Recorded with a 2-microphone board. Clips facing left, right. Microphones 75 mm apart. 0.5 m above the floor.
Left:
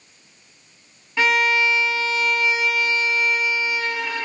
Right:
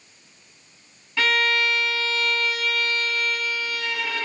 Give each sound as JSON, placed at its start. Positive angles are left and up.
{"t": 1.2, "sound": "a violin", "side_deg": 15, "distance_m": 1.8}